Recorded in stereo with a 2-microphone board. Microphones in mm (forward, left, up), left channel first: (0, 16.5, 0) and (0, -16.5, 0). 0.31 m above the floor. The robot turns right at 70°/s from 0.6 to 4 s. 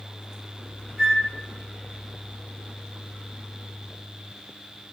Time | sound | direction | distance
1.0 | a flute | 20° right (ahead or behind) | 1.7 m